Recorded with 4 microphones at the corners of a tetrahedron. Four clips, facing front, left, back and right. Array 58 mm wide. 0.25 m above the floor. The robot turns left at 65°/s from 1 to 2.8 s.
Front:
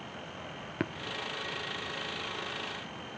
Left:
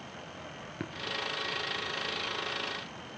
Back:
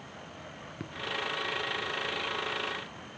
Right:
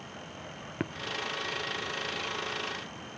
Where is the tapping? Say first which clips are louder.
Right 6 dB, front 10 dB; 35° right, 0.9 m.